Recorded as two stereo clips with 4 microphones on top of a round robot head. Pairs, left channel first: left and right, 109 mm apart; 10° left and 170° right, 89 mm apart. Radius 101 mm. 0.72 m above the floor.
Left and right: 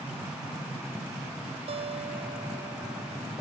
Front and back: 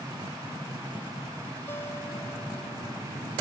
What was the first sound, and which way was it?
A guitar, 60° right.